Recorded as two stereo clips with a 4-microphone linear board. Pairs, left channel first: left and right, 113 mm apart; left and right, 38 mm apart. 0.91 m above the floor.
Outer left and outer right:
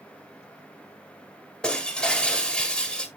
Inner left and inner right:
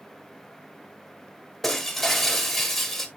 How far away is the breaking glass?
About 2.5 m.